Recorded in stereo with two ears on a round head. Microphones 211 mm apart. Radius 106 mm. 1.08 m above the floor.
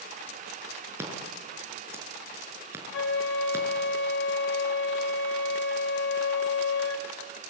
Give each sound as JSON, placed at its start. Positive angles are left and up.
{"t": 1.0, "sound": "scissors", "side_deg": -10, "distance_m": 6.0}
{"t": 2.9, "sound": "a flute", "side_deg": 55, "distance_m": 2.5}